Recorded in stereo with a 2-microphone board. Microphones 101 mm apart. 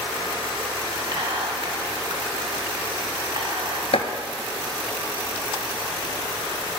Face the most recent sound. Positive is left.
turn(degrees=75)  # may be behind; listen again after turning